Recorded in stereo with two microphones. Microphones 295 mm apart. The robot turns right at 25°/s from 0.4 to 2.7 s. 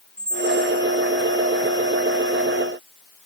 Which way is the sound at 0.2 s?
45° right (ahead or behind).